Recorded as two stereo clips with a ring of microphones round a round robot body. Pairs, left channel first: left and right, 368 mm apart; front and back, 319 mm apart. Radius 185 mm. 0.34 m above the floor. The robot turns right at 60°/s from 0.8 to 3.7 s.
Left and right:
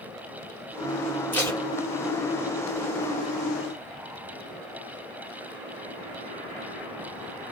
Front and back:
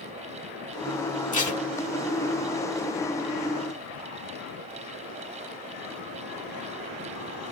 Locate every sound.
1.3 s tape being pulled: 10° left, 1.4 m; by 1.6 s 30° left, 1.4 m